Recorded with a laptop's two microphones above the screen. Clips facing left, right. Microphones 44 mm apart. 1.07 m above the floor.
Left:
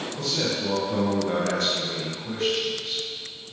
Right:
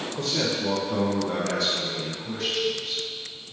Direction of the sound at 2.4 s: 25° left (ahead or behind).